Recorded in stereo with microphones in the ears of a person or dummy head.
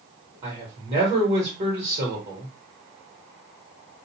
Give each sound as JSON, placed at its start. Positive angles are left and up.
{"t": 0.4, "sound": "a man speaking", "side_deg": -35, "distance_m": 1.3}